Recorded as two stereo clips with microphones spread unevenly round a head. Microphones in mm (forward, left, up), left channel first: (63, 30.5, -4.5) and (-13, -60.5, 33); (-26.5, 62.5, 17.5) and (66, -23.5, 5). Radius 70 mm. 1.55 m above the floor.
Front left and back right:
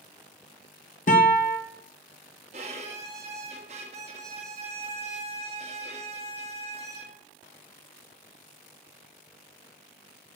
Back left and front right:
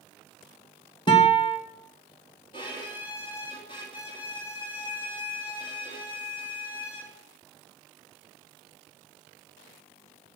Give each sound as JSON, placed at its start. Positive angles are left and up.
{"t": 1.1, "sound": "a guitar", "azimuth_deg": 80, "distance_m": 2.5}
{"t": 2.5, "sound": "a violin", "azimuth_deg": -165, "distance_m": 2.0}